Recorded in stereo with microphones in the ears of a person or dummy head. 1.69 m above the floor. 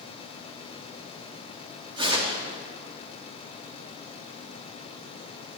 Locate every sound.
2.0 s tearing paper: 20° right (ahead or behind), 4.5 m